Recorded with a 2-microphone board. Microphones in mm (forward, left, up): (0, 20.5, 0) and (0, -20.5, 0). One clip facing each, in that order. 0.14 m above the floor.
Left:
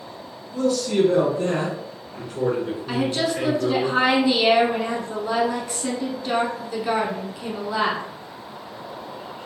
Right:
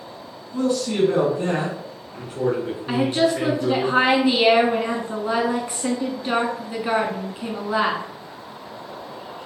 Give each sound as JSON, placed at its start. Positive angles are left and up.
{"t": 0.5, "sound": "a man speaking", "side_deg": -25, "distance_m": 2.0}
{"t": 2.9, "sound": "a woman speaking", "side_deg": -25, "distance_m": 1.1}